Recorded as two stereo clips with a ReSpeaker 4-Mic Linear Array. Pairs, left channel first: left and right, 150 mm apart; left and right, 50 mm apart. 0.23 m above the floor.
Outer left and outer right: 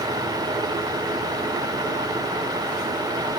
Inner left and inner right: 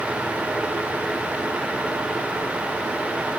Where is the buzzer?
I don't hear a buzzer.